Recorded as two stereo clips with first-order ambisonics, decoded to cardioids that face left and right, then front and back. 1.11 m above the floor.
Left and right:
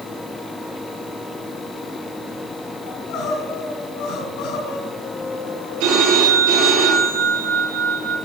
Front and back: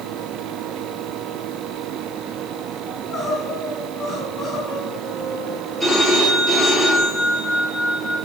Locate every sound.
2.9 s crying: 75° left, 4 m
5.8 s a phone ringing: 90° right, 6.5 m